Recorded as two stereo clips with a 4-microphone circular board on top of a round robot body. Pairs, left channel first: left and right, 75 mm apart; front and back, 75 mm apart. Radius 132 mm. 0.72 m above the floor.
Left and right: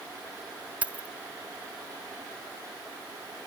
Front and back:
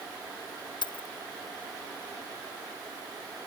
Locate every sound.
0.8 s keys jangling: 20° right